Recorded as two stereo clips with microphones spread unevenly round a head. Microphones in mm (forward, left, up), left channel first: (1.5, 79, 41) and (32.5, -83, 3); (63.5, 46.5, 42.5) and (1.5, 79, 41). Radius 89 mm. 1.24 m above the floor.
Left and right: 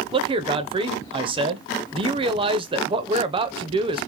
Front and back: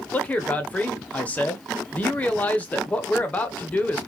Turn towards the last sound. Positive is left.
turn(degrees=-95)